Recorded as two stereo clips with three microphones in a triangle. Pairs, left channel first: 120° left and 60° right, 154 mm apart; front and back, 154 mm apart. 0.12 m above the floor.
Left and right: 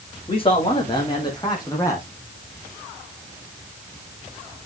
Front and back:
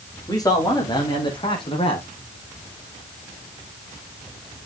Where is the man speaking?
65° left, 6.5 m; by 2.1 s 50° left, 5 m.